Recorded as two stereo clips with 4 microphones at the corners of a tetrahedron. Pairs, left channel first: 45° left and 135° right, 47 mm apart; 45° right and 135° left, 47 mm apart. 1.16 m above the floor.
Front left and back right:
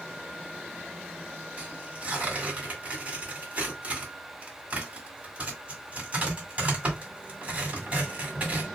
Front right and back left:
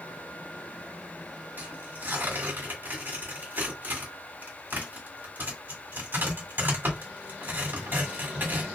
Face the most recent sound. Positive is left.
turn(degrees=170)